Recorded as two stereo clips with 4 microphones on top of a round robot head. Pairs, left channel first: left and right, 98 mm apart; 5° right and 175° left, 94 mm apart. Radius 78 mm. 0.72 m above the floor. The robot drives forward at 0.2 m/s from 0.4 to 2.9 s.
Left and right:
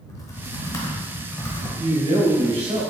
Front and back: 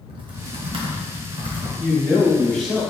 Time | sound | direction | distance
0.1 | typing on a keyboard | 145° left | 0.9 m
1.8 | a man speaking | 85° right | 1.9 m